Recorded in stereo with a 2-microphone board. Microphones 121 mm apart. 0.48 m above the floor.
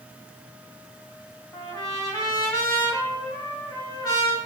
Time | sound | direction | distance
1.5 | a trumpet | 30° left (ahead or behind) | 0.8 m